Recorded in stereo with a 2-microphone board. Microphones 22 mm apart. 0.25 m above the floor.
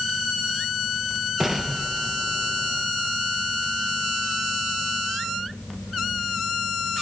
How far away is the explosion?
About 1.6 m.